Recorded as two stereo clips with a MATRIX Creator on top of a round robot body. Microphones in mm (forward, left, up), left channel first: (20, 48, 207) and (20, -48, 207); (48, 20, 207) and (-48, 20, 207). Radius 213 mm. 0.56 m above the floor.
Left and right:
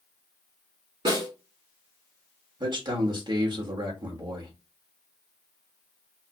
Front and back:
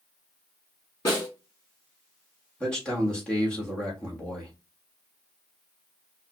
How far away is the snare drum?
About 3.5 m.